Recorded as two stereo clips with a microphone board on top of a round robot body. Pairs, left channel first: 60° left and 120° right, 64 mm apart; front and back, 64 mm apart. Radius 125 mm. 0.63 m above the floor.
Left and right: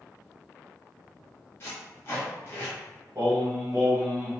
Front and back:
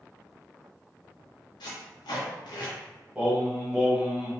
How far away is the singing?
About 1.3 m.